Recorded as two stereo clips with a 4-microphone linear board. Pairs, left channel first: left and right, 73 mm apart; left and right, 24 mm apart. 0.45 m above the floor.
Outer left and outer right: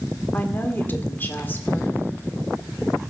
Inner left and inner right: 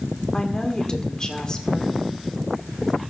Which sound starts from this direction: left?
A woman speaking, at 0.3 s.